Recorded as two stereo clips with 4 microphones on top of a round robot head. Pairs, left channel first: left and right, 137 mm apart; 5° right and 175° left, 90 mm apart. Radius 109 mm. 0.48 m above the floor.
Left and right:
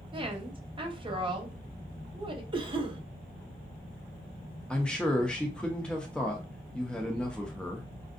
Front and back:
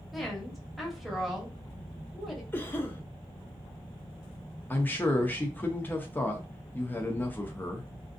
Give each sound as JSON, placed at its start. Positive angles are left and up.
{"t": 0.1, "sound": "a woman speaking", "azimuth_deg": -90, "distance_m": 1.0}
{"t": 2.5, "sound": "a cough", "azimuth_deg": -60, "distance_m": 0.9}
{"t": 4.7, "sound": "a man speaking", "azimuth_deg": 20, "distance_m": 0.7}